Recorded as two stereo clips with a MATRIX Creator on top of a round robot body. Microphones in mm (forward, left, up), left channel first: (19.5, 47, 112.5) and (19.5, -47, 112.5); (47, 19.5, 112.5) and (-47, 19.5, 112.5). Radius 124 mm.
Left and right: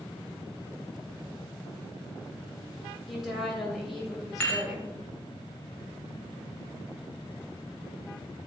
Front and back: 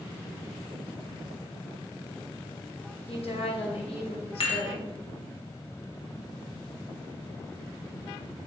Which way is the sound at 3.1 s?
5° right.